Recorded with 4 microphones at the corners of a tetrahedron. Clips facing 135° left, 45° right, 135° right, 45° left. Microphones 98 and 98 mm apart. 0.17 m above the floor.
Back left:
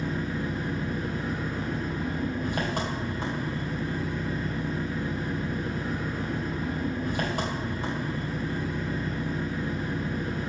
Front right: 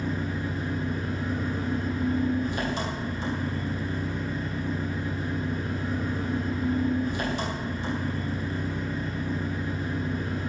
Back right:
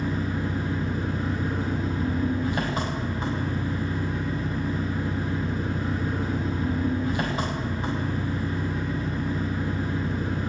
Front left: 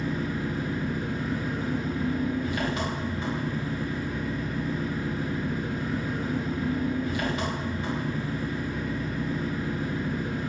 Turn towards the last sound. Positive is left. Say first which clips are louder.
# even, back right 1 dB
turn(degrees=170)